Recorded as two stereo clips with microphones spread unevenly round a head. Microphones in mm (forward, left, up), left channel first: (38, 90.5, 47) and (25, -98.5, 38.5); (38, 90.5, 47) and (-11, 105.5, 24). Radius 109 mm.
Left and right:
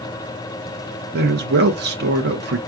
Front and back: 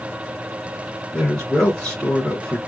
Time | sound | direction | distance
1.1 | a man speaking | 110° right | 1.1 m